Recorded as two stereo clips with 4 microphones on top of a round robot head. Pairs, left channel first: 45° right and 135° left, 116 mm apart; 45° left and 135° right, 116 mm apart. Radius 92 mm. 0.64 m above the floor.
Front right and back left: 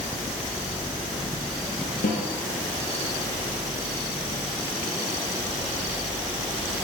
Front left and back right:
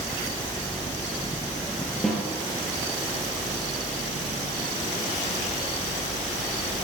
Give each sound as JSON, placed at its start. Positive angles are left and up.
{"t": 2.0, "sound": "a snare drum", "azimuth_deg": -45, "distance_m": 7.0}